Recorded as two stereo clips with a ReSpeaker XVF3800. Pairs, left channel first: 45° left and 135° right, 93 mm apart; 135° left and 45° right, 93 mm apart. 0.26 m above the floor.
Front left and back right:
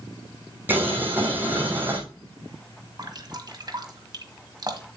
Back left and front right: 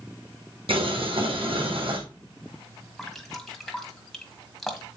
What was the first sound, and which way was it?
Boiling, 65° right.